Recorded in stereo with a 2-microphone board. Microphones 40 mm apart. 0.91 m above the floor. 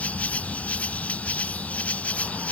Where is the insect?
40° left (ahead or behind).